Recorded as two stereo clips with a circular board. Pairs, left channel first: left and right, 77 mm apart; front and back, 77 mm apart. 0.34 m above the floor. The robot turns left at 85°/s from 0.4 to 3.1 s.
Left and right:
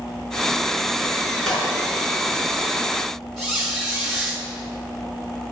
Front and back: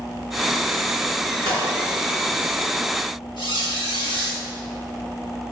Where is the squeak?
Straight ahead, 4 m.